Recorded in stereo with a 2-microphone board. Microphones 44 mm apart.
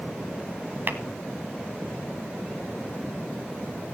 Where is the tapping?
50° right (ahead or behind), 1.3 m.